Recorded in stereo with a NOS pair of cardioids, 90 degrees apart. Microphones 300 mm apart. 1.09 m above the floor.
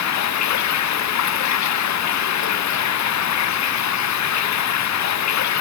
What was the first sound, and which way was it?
Running water, 65° left.